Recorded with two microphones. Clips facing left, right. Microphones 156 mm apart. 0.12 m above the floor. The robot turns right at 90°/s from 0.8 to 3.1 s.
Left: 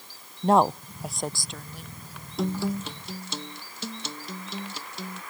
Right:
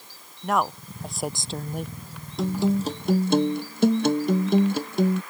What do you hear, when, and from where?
0.4 s a woman speaking: 150° left; by 1.9 s 110° right
2.4 s a guitar: straight behind; by 5.2 s 115° right